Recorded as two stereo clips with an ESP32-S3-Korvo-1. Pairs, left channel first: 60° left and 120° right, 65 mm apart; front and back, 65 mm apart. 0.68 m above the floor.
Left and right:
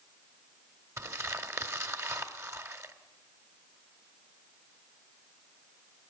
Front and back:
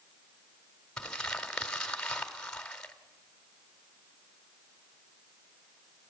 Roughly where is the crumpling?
Right.